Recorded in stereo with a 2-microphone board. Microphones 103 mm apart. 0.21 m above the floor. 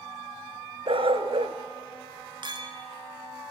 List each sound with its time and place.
0.9 s a dog barking: 65° right (ahead or behind), 1.0 m
2.4 s a clink: 50° right (ahead or behind), 1.8 m